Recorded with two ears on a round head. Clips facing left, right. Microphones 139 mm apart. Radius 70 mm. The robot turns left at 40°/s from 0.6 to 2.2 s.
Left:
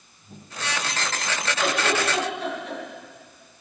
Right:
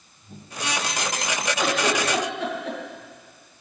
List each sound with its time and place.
1.6 s a giggle: 90° right, 3 m; by 2.8 s 65° right (ahead or behind), 3 m